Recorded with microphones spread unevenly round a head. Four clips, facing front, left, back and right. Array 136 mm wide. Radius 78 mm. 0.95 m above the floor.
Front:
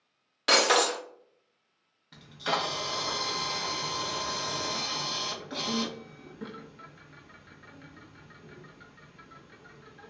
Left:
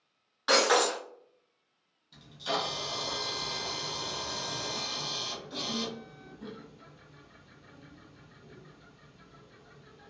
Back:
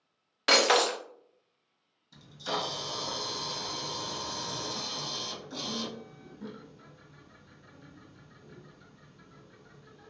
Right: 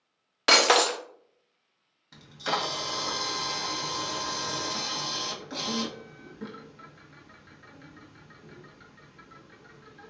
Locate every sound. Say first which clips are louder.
0.5 s breaking glass: right 3 dB, even; 105° right, 0.5 m
2.1 s a camera shutter: right 3 dB, front 4 dB; 45° right, 1.0 m